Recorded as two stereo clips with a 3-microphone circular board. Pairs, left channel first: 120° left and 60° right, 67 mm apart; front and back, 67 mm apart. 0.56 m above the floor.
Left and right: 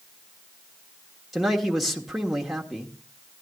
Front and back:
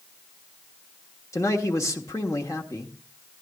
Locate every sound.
1.3 s a man speaking: 30° left, 1.3 m